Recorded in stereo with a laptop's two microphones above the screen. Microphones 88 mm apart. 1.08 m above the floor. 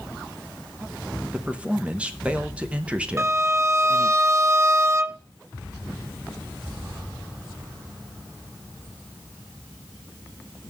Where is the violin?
35° right (ahead or behind), 0.6 m.